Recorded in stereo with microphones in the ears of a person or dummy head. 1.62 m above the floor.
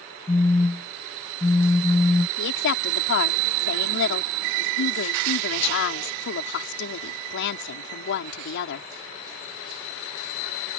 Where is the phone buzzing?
15° left (ahead or behind).